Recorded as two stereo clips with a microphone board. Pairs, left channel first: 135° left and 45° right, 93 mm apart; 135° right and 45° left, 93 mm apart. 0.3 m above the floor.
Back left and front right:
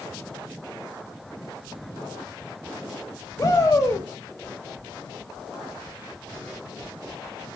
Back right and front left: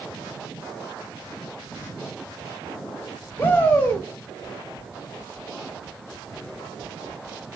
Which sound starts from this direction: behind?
A shout, at 3.4 s.